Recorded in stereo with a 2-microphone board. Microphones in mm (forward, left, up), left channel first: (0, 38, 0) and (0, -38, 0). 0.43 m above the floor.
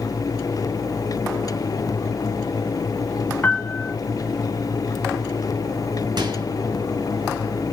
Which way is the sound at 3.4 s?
20° left (ahead or behind).